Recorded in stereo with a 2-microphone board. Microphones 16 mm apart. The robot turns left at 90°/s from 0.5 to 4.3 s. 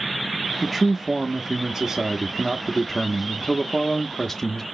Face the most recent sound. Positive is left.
turn(degrees=55)